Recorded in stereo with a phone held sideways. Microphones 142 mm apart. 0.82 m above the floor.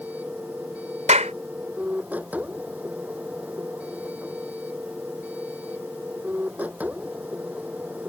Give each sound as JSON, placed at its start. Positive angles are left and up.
{"t": 0.0, "sound": "a machine running", "side_deg": -10}
{"t": 1.1, "sound": "a clap", "side_deg": -60}